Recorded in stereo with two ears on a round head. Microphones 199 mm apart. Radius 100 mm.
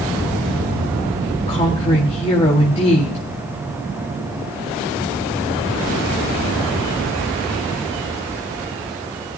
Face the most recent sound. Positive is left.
turn(degrees=30)  # may be behind; listen again after turning